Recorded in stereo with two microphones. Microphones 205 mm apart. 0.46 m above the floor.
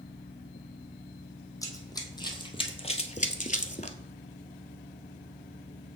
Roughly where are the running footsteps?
Centre.